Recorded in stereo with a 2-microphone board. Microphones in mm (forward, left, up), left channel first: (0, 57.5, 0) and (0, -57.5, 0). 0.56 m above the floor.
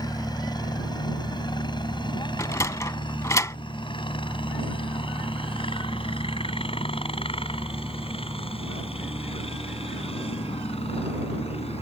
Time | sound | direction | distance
0.0 | a helicopter | 35° left (ahead or behind) | ?
2.4 | a sliding door | 25° left (ahead or behind) | ?